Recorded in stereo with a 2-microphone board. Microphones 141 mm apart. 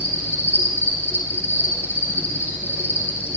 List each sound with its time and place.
0.0 s an insect: 15° left (ahead or behind), 7.5 m